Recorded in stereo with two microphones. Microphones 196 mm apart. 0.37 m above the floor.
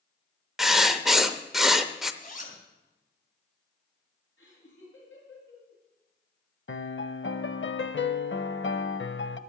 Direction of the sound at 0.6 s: Centre (ahead or behind).